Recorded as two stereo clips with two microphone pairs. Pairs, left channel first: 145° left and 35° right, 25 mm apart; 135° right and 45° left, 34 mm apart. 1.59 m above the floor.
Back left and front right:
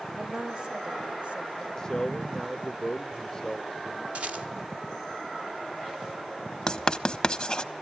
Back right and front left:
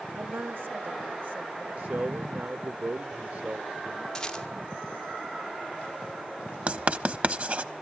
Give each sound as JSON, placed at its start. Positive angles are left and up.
{"t": 0.1, "sound": "a woman speaking", "azimuth_deg": 35, "distance_m": 1.3}
{"t": 1.8, "sound": "a man speaking", "azimuth_deg": 75, "distance_m": 0.9}
{"t": 4.2, "sound": "a rattle", "azimuth_deg": -60, "distance_m": 2.0}
{"t": 6.7, "sound": "writing", "azimuth_deg": 85, "distance_m": 1.2}